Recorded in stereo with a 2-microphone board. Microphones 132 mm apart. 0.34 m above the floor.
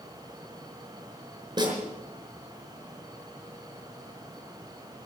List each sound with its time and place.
1.6 s a snare drum: 35° right (ahead or behind), 4.5 m